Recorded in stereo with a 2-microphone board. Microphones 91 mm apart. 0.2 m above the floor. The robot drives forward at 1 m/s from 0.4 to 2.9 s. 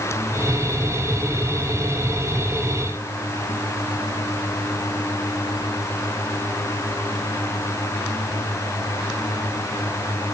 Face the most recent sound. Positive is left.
No sound to turn to.